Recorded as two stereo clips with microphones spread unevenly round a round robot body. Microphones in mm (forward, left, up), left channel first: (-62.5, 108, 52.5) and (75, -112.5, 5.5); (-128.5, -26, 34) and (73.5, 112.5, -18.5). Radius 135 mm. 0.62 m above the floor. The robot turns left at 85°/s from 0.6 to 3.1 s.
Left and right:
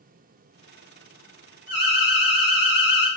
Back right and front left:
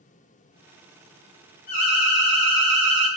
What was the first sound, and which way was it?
An alarm, 150° right.